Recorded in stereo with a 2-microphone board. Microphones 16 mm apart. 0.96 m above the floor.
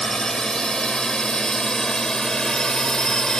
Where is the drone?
50° left (ahead or behind); by 3.4 s 40° left (ahead or behind).